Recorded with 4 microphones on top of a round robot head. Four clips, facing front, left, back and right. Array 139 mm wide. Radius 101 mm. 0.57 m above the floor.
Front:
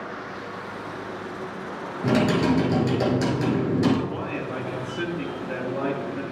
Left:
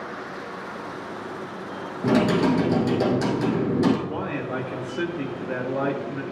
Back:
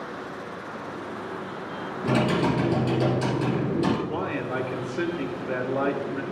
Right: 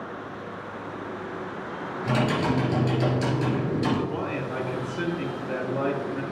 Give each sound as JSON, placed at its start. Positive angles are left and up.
{"t": 2.0, "sound": "typing on a keyboard", "azimuth_deg": 55, "distance_m": 2.0}
{"t": 4.1, "sound": "a man speaking", "azimuth_deg": 130, "distance_m": 1.3}